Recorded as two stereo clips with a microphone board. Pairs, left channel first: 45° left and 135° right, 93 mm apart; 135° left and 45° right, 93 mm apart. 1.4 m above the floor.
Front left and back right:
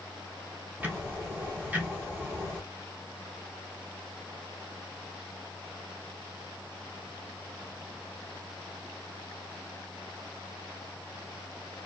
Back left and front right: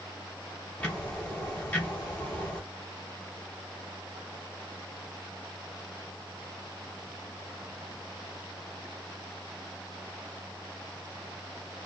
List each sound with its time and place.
0.8 s ticking: 170° right, 1.3 m